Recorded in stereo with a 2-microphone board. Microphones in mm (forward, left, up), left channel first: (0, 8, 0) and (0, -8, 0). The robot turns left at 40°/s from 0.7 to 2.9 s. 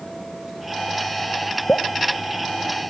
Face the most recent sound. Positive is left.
turn(degrees=55)  # may be behind; listen again after turning